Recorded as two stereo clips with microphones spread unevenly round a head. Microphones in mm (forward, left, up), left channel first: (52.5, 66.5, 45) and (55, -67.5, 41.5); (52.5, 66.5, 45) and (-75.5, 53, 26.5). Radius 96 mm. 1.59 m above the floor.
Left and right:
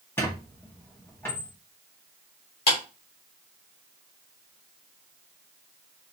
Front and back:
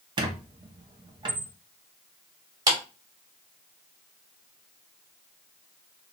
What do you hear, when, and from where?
0.2 s a squeak: 155° left, 0.9 m
2.7 s a clap: 125° left, 2.5 m